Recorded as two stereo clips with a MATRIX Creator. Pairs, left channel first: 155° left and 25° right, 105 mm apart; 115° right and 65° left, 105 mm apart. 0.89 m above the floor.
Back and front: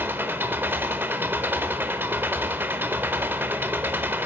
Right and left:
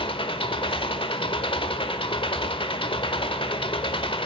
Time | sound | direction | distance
0.0 | an engine running | 90° right | 1.0 m